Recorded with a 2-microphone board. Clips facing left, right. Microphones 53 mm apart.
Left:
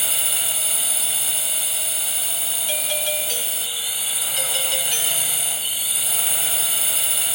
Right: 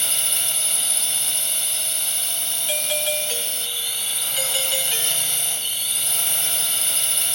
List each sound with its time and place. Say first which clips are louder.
0.0 s a drone: left 1 dB; 5° left (ahead or behind)
2.7 s a doorbell: right 1 dB; 5° right (ahead or behind)